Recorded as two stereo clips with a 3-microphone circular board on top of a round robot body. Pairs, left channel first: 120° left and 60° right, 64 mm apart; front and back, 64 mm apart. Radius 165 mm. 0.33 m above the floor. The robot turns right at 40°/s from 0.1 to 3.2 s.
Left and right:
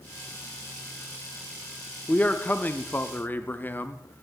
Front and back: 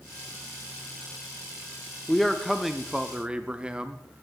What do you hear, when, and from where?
2.1 s a man speaking: 80° left, 0.9 m; by 4.2 s 125° left, 0.9 m